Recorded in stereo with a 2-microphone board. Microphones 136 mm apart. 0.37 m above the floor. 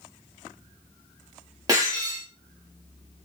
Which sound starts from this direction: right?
Breaking glass, at 1.7 s.